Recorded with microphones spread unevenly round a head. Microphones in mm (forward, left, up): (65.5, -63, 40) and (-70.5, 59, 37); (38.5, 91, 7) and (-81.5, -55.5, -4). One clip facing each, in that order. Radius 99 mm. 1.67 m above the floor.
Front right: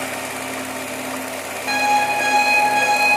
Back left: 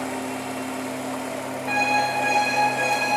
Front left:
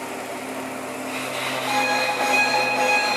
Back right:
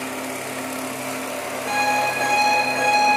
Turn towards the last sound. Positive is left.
turn(degrees=-65)